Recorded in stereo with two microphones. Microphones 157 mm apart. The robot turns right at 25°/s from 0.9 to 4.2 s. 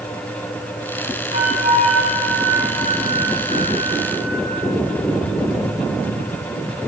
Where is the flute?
80° right, 1.3 m; by 4.4 s 5° right, 1.3 m.